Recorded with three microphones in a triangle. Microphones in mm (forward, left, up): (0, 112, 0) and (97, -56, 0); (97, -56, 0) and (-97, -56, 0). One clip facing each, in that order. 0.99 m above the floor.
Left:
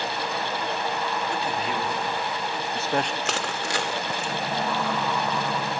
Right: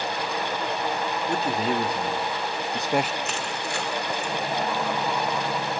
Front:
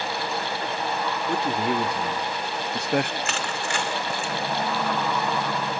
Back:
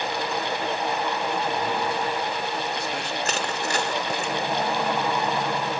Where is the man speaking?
10° right, 1.9 m; by 3.1 s 30° left, 0.8 m.